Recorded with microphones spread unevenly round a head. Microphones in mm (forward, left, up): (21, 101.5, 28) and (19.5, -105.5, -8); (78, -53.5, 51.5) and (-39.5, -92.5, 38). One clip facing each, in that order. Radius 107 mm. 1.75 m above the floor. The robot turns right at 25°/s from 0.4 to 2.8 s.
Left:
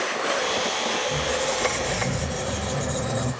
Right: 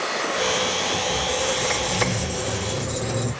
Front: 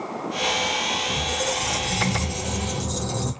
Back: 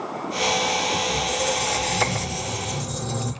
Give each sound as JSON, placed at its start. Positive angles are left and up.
{"t": 1.1, "sound": "a squeak", "azimuth_deg": -75, "distance_m": 2.5}